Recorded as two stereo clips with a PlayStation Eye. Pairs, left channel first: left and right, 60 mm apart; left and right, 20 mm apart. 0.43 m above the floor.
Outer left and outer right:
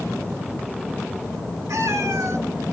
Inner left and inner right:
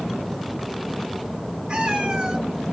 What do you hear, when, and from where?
1.7 s a cat meowing: 60° right (ahead or behind), 3 m